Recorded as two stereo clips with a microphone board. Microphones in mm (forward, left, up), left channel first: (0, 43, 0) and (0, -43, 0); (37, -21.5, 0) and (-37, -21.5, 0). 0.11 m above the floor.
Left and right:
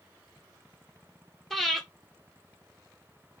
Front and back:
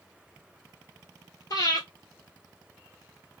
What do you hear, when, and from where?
1.5 s breathing: 5° left, 1.1 m